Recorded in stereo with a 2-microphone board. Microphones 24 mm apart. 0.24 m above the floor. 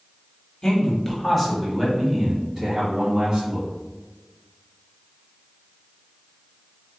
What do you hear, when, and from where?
0.6 s a man speaking: 25° left (ahead or behind), 1.1 m; by 3.7 s 25° right (ahead or behind), 2 m